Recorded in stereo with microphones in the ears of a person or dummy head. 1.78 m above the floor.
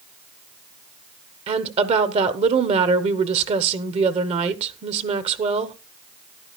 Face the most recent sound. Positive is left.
turn(degrees=-35)  # may be behind; listen again after turning